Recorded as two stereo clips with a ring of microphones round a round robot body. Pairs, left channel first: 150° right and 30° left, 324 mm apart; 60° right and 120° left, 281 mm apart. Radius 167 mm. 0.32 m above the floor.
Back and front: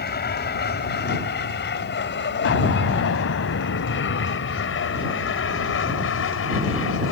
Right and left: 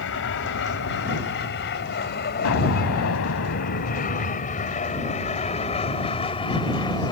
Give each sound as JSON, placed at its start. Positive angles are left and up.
{"t": 0.0, "sound": "an aircraft", "azimuth_deg": -95}
{"t": 2.5, "sound": "an explosion", "azimuth_deg": -100}